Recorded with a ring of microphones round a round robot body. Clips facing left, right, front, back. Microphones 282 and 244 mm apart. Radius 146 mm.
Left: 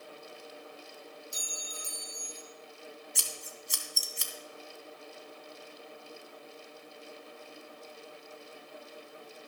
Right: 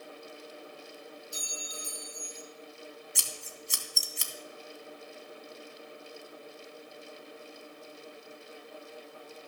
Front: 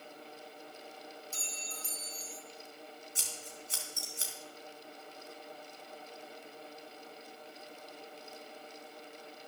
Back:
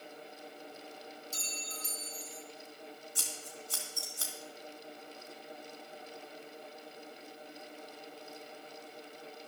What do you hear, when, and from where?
1.3 s a clink: 130° left, 1.5 m
3.1 s scissors: 70° right, 1.4 m